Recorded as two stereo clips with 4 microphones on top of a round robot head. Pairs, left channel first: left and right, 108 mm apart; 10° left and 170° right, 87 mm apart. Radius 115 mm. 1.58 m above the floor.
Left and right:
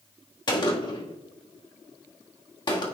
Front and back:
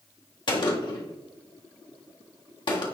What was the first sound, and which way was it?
A gunshot, 40° left.